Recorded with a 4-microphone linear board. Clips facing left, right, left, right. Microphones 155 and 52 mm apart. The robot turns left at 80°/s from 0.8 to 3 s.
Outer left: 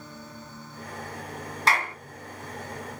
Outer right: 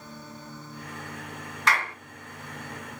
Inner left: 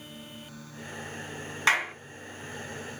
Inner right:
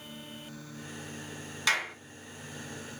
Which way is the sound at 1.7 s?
35° left (ahead or behind).